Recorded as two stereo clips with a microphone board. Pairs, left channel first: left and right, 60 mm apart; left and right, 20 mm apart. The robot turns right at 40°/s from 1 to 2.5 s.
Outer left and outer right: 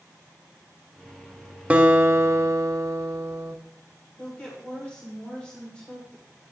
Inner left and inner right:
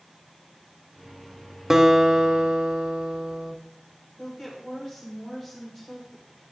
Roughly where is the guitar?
Behind.